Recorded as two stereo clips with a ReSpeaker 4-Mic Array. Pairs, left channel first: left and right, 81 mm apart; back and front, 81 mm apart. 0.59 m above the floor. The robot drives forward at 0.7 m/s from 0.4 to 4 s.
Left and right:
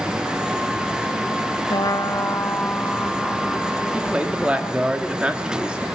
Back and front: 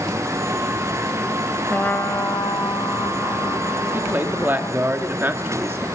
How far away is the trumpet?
About 0.5 m.